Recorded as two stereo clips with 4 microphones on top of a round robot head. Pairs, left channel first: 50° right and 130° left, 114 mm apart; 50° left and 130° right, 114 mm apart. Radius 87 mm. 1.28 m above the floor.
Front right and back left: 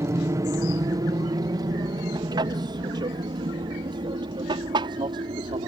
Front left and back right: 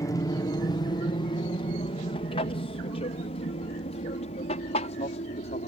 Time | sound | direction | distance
0.0 | an aircraft | 85° left | ?